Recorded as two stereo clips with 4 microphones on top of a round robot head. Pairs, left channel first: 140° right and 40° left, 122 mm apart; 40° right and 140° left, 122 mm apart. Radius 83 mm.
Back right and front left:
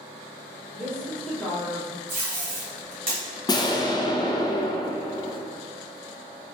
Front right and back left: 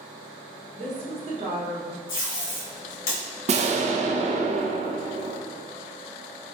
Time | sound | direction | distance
0.7 | a woman speaking | 140° left | 1.1 m
2.1 | tape being pulled | 35° right | 1.7 m
3.5 | an explosion | 165° left | 0.5 m